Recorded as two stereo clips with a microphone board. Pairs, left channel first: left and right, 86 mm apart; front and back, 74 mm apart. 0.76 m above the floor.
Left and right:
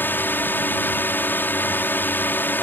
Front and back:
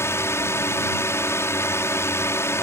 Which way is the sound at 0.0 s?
35° left.